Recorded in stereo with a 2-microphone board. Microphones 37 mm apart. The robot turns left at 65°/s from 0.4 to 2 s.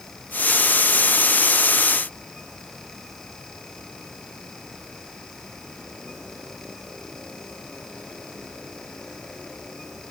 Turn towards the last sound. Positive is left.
No sound to turn to.